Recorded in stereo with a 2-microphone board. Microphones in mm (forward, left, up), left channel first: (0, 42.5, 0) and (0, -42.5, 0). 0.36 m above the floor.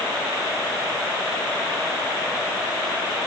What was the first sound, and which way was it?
Only background noise.